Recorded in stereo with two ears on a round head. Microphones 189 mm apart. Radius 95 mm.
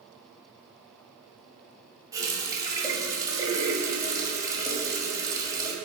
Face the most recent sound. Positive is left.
turn(degrees=-15)  # may be behind; listen again after turning